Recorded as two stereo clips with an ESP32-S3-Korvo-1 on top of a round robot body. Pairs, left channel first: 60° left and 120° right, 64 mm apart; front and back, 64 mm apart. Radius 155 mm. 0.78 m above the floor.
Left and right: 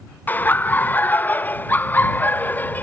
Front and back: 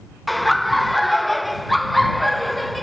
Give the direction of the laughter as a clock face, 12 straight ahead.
9 o'clock.